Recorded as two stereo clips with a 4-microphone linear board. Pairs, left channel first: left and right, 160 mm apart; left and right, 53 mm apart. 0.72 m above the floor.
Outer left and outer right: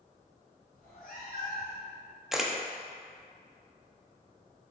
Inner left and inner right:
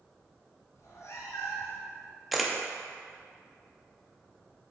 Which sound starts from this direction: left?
A cat meowing, at 0.8 s.